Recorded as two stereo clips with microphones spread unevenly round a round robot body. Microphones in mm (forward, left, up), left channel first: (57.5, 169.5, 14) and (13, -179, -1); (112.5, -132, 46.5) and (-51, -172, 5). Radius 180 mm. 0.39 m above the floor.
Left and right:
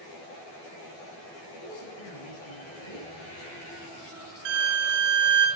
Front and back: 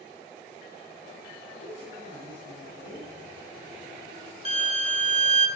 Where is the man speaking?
85° left, 7 m.